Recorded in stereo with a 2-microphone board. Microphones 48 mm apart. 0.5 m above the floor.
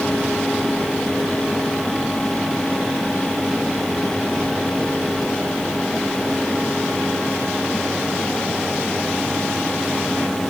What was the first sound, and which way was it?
Only background noise.